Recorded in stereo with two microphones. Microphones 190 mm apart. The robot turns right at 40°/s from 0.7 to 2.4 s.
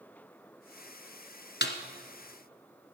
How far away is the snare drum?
About 1.3 m.